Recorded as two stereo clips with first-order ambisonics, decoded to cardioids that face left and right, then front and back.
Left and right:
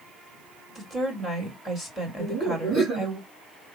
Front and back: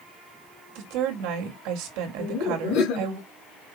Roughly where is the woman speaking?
Behind.